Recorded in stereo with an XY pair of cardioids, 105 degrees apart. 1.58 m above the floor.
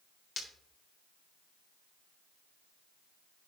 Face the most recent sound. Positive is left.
turn(degrees=45)